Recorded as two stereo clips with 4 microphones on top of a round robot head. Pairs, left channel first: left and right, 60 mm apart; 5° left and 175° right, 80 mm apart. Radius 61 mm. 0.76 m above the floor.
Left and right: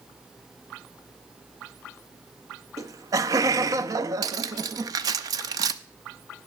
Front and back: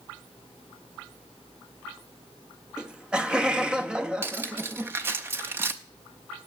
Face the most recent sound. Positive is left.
turn(degrees=-110)